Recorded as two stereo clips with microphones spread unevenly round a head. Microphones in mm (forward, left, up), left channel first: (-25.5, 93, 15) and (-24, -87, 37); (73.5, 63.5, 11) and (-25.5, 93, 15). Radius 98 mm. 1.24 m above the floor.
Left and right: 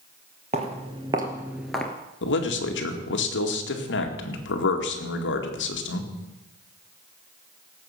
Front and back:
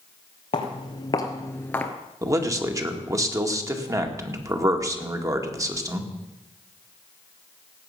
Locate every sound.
0.5 s footsteps: 50° right, 1.8 m; by 1.9 s 5° right, 1.2 m
2.2 s a man speaking: 105° left, 2 m